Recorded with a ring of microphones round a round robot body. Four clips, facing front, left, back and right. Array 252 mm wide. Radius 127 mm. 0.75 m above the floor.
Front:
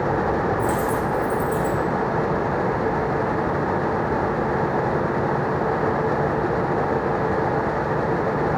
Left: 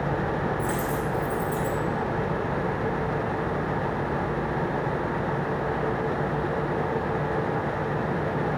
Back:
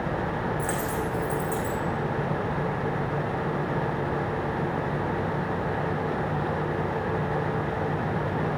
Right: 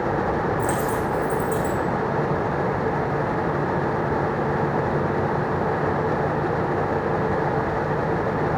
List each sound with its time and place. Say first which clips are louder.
0.6 s a dropped coin: right 4 dB, front 7 dB; 100° right, 5.5 m